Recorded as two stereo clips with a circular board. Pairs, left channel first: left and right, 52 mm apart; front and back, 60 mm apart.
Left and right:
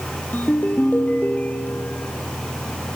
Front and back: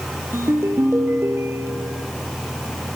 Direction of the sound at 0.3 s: 140° left.